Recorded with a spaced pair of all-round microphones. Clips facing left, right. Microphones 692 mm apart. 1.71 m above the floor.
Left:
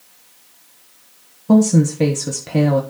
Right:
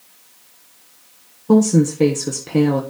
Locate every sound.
1.5 s a woman speaking: 15° left (ahead or behind), 1.1 m